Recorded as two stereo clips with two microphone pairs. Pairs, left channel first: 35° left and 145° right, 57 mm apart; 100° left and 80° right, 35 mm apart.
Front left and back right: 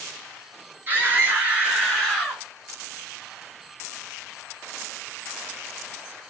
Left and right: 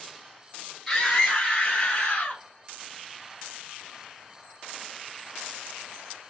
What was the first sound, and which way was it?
A scream, 175° left.